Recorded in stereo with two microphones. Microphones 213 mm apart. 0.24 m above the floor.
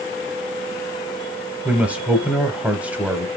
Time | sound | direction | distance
1.6 | a man speaking | 5° right (ahead or behind) | 1.0 m